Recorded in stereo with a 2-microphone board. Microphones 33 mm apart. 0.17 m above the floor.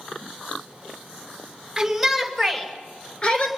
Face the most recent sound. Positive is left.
turn(degrees=40)  # may be behind; listen again after turning